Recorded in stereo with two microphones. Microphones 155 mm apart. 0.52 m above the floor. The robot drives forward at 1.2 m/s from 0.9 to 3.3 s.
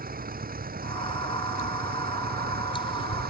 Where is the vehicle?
70° right (ahead or behind); by 3.3 s 80° right.